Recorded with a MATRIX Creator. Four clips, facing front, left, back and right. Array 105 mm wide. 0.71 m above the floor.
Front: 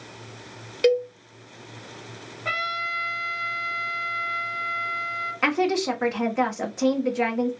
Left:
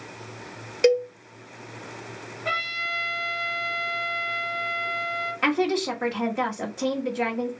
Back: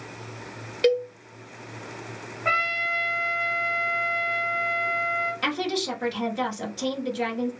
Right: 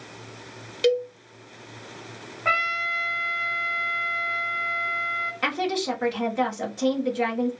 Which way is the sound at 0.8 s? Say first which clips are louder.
Left 2 dB, front 1 dB; 80° left.